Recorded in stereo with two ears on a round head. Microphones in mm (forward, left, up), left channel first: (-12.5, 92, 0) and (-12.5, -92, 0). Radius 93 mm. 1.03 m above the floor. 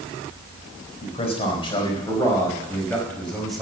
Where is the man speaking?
30° left (ahead or behind), 5 m; by 3.6 s centre (ahead or behind), 5.5 m.